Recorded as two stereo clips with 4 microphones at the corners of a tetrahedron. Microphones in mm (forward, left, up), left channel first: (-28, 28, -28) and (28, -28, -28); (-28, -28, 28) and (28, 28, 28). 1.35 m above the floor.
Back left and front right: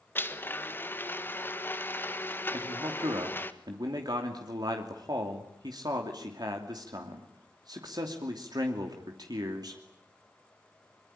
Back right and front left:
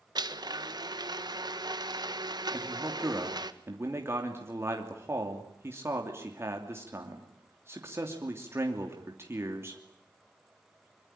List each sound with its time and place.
0.1 s a blender: 70° left, 1.5 m
2.5 s a man speaking: 10° right, 3 m